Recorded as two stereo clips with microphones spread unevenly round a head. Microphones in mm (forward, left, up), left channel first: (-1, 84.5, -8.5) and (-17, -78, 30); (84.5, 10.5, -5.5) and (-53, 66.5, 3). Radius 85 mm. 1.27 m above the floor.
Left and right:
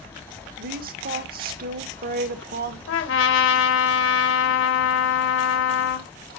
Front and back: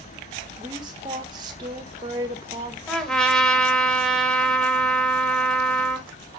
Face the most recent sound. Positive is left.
turn(degrees=65)